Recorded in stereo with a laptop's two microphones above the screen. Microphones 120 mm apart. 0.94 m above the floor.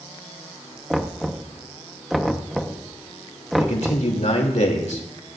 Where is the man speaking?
80° left, 3 m.